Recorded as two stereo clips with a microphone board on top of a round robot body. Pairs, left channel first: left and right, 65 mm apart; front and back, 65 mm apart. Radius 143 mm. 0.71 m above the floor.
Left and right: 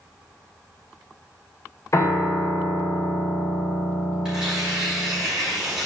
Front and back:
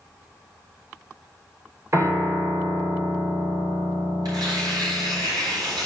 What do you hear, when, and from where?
1.9 s a piano: 130° left, 2.5 m
4.2 s tearing paper: 170° right, 5.5 m